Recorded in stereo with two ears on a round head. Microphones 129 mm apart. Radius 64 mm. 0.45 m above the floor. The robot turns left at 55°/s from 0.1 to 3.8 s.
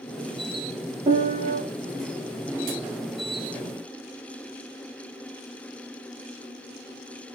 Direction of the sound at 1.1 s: 25° right (ahead or behind).